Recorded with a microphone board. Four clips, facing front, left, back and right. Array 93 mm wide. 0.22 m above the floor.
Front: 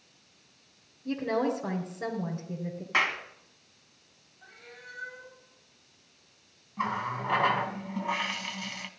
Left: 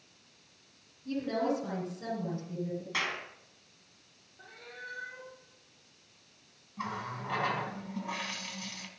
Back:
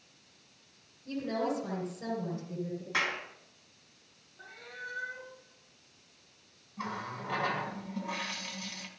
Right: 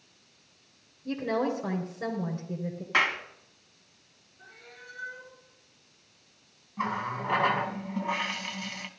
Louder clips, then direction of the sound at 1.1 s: Right 2 dB, front 4 dB; 45° right.